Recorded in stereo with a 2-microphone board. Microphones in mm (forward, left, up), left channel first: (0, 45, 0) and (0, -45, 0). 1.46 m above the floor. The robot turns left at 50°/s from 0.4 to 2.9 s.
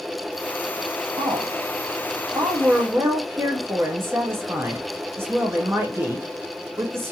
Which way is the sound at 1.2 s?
60° right.